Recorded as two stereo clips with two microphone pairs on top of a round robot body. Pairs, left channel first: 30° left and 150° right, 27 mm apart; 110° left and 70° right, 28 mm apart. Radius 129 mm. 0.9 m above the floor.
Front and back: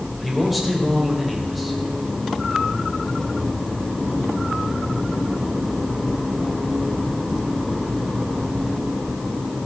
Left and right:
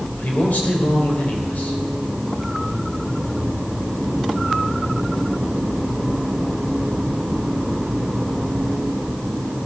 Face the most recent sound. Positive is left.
turn(degrees=125)